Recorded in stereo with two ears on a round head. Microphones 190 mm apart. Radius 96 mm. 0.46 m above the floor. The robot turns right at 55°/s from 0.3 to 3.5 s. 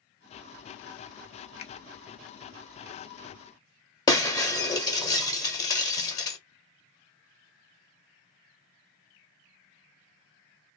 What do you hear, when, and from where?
1.6 s a finger snap: 30° left (ahead or behind), 0.6 m
4.1 s breaking glass: 20° left (ahead or behind), 1.0 m